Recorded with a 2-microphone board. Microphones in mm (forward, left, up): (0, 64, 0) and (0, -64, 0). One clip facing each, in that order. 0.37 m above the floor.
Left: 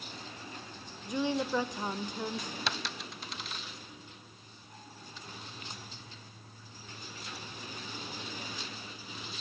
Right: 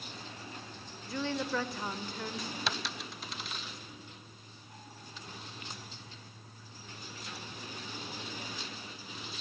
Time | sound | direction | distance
1.1 | a woman speaking | 15° left (ahead or behind) | 1.1 m
2.7 | a dropped coin | centre (ahead or behind) | 0.6 m